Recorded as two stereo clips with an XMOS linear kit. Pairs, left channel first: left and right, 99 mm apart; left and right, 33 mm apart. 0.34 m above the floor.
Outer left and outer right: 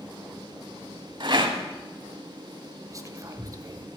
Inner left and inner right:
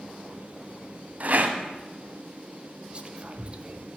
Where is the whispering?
35° right (ahead or behind), 1.0 m.